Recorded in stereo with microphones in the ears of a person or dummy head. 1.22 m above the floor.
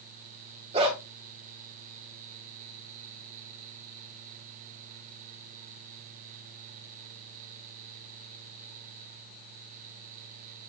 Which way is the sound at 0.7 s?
30° right (ahead or behind).